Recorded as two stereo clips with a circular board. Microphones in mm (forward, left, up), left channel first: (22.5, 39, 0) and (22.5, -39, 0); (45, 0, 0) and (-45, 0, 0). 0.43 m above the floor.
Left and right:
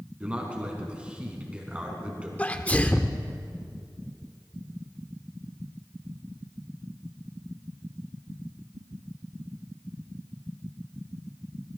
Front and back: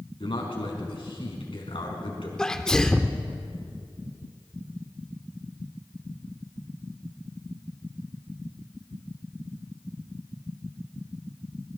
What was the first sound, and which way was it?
A man speaking, 15° right.